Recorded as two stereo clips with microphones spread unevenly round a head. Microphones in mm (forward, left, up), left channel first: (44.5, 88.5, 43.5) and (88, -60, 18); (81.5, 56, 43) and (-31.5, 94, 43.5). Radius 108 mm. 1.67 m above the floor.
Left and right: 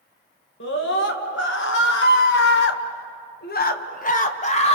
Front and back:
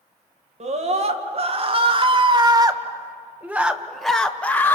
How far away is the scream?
About 2.5 m.